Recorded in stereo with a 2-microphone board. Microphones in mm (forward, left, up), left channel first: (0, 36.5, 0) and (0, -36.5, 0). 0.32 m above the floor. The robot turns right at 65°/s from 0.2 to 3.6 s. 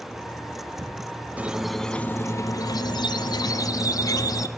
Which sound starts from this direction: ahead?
A squeak, at 1.4 s.